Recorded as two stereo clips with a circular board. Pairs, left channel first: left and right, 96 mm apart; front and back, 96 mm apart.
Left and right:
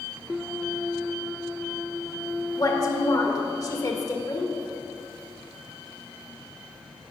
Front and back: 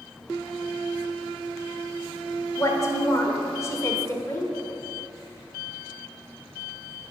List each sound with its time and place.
2.6 s a woman speaking: 50° left, 1.2 m